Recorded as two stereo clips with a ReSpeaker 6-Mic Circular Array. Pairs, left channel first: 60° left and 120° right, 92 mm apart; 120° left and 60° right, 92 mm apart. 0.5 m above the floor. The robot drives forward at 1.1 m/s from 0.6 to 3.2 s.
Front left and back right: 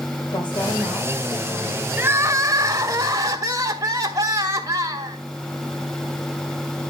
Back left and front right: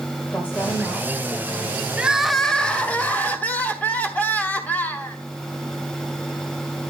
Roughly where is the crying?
Behind right.